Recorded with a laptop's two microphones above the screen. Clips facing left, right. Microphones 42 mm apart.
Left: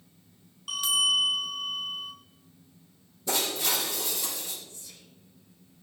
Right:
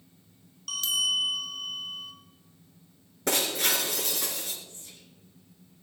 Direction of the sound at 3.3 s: 80° right.